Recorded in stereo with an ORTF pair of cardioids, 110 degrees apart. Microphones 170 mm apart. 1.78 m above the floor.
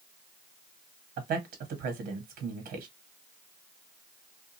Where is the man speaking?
65° right, 1.3 m.